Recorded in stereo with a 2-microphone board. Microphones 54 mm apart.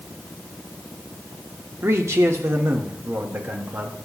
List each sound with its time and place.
1.8 s a man speaking: 65° right (ahead or behind), 1.4 m; by 4.0 s 45° right (ahead or behind), 2.0 m